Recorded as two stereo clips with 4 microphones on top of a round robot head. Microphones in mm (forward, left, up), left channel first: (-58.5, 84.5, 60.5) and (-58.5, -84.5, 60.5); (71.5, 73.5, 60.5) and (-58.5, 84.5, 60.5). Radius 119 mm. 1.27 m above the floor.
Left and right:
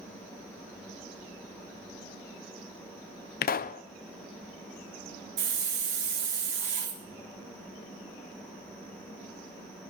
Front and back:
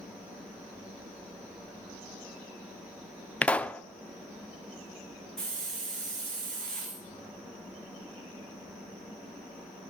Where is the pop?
75° left, 0.6 m.